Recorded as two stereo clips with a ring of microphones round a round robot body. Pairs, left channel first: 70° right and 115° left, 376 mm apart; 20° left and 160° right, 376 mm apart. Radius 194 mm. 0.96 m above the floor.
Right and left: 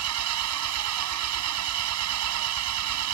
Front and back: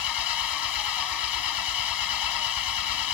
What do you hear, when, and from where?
0.0 s an engine running: 60° left